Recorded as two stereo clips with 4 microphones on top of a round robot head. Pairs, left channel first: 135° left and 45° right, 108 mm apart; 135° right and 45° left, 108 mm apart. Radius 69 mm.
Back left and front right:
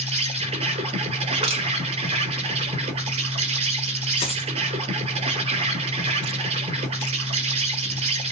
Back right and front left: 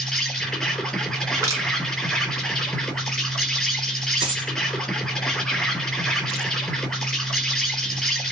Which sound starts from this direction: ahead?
Crushing, at 1.4 s.